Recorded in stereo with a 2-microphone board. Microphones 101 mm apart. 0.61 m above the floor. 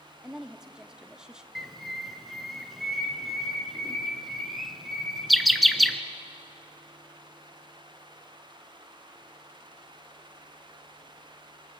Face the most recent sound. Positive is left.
turn(degrees=0)  # may be behind; listen again after turning